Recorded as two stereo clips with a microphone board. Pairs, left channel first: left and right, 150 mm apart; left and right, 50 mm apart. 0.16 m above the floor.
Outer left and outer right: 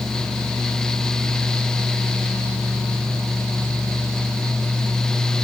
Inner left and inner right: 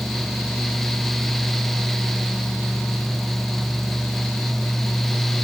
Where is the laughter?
I don't hear laughter.